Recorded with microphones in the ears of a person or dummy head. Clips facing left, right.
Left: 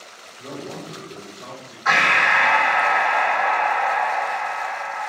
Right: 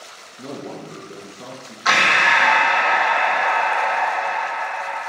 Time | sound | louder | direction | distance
0.4 | a man speaking | right 2 dB | 75° right (ahead or behind) | 2 m
1.9 | breathing | right 1 dB | 55° right (ahead or behind) | 1.1 m